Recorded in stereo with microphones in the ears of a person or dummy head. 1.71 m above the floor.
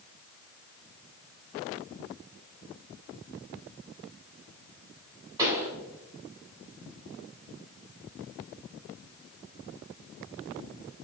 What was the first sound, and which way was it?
A pop, 20° right (ahead or behind).